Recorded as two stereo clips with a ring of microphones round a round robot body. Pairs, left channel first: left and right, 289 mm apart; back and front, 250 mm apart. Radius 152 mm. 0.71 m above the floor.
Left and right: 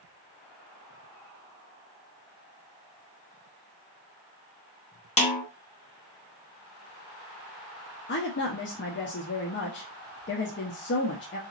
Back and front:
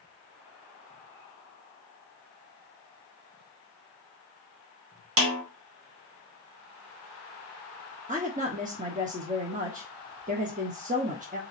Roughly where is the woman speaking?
Ahead left.